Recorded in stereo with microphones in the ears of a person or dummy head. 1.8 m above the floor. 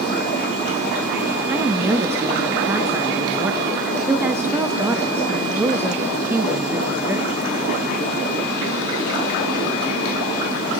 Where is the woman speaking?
10° right (ahead or behind), 0.6 m.